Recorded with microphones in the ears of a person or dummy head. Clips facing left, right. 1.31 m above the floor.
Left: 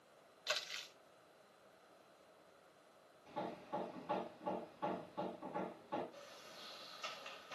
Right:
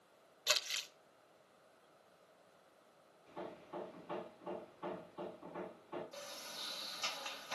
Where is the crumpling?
55° right (ahead or behind), 0.9 m.